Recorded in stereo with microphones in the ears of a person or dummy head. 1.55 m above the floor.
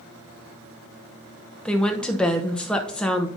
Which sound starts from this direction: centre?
A woman speaking, at 1.6 s.